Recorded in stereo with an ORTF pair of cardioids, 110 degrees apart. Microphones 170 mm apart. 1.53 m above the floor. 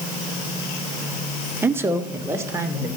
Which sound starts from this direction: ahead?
A man speaking, at 1.6 s.